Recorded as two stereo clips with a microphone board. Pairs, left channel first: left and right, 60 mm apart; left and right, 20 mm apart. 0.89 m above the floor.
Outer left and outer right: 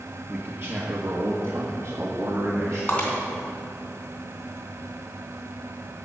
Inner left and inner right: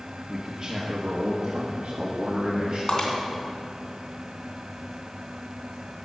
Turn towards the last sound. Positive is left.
turn(degrees=30)  # may be behind; listen again after turning